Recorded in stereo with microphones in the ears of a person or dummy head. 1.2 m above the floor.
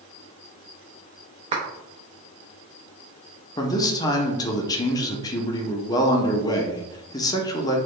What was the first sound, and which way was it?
A clap, 35° right (ahead or behind).